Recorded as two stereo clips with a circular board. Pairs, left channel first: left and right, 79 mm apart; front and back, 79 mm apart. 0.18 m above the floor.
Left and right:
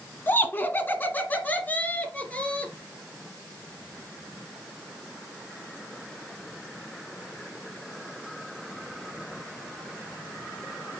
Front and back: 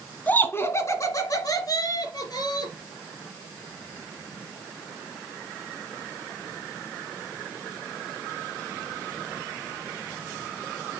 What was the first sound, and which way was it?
Laughter, 50° left.